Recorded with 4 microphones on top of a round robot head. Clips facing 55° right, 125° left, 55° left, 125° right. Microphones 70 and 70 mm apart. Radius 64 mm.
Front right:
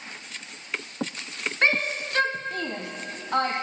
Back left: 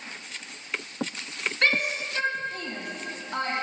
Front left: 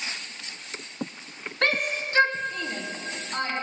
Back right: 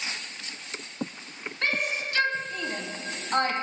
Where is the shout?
20° left, 1.4 m; by 3.5 s 80° right, 2 m.